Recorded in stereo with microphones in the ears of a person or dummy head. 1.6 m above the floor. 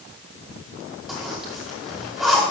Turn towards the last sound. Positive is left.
turn(degrees=0)  # may be behind; listen again after turning